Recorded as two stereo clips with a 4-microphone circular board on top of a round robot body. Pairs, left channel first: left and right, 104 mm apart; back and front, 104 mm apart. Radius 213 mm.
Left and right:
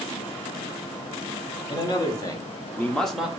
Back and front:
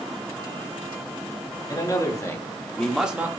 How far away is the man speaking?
About 2.5 m.